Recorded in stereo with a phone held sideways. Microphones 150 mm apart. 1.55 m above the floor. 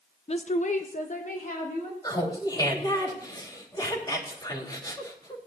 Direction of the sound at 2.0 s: 30° left (ahead or behind).